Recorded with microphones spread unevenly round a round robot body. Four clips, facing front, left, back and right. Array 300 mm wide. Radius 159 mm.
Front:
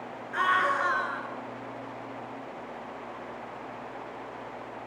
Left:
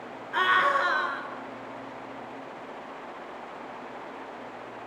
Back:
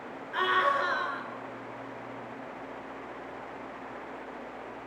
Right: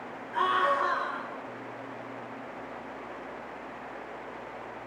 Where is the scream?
80° left, 7.5 m.